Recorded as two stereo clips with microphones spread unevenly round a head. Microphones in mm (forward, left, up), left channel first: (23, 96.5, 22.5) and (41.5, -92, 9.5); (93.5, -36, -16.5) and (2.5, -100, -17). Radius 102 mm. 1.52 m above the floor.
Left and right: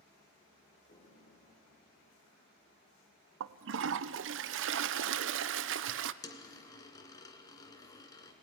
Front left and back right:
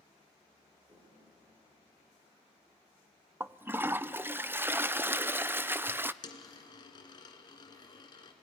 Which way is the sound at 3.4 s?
75° right.